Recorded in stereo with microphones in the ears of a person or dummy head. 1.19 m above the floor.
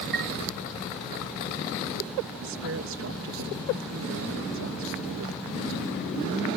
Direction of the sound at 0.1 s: 50° right (ahead or behind).